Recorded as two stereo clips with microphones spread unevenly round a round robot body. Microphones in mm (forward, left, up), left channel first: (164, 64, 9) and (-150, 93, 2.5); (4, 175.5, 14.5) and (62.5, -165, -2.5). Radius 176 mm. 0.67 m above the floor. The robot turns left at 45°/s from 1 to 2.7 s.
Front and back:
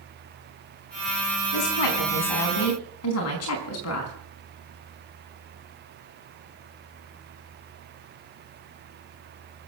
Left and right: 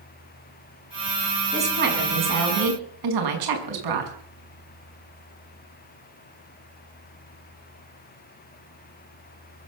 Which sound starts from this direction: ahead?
A woman speaking, at 1.5 s.